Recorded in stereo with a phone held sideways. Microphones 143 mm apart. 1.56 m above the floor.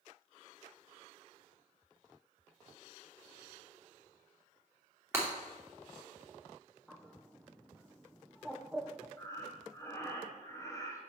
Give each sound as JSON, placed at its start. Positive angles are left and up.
{"t": 5.1, "sound": "breaking glass", "side_deg": -20, "distance_m": 2.5}
{"t": 6.9, "sound": "a bird", "side_deg": 0, "distance_m": 0.6}
{"t": 9.2, "sound": "breathing", "side_deg": 20, "distance_m": 1.1}